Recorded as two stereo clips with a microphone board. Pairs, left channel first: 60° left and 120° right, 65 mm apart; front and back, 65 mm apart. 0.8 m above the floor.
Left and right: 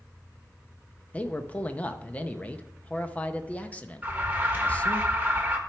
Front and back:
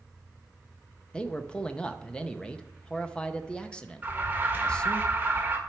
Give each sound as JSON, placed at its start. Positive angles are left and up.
{"t": 1.1, "sound": "a man speaking", "azimuth_deg": 50, "distance_m": 0.6}
{"t": 4.0, "sound": "an alarm", "azimuth_deg": -160, "distance_m": 1.4}